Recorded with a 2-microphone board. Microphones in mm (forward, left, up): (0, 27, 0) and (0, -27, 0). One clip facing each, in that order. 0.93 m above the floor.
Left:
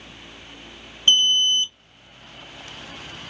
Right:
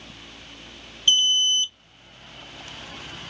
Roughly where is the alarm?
Left.